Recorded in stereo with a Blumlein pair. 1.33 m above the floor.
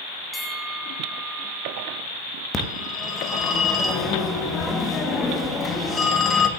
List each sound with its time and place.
0.3 s a bell: 5° left, 2.5 m
2.5 s a phone ringing: 20° left, 1.3 m